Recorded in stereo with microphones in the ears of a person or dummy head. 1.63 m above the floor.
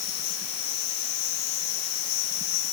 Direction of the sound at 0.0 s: 65° left (ahead or behind).